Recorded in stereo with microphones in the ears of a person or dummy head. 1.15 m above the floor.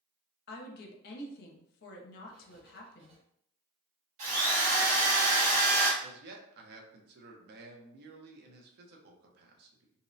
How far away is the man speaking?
About 0.7 m.